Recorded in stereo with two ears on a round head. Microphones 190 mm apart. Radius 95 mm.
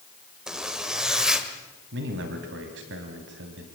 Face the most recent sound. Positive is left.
turn(degrees=-60)  # may be behind; listen again after turning